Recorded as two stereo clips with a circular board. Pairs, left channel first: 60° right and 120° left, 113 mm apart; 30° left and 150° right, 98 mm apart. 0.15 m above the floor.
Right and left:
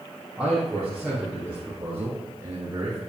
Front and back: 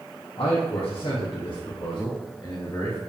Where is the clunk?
No clunk in this recording.